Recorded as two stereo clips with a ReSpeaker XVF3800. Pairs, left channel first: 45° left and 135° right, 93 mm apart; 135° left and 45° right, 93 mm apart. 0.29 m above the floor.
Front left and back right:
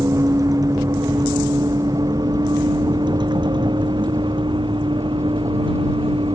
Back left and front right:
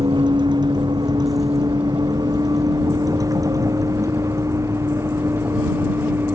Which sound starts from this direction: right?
A vehicle, at 0.0 s.